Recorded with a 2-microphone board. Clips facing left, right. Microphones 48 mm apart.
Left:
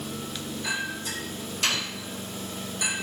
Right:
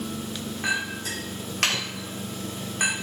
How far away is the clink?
About 3 m.